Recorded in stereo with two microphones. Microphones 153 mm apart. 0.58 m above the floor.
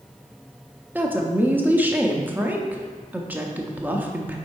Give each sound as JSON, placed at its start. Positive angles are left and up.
{"t": 0.9, "sound": "a woman speaking", "side_deg": -10, "distance_m": 0.7}